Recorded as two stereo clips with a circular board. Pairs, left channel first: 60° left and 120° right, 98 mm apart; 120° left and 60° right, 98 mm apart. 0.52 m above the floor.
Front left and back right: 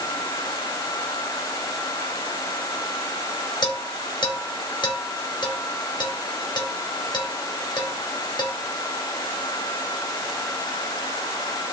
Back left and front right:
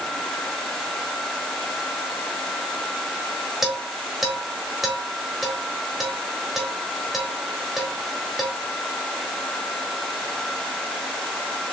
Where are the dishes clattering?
25° left, 1.4 m.